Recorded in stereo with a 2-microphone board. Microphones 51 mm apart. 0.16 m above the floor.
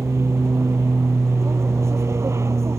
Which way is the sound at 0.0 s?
70° right (ahead or behind).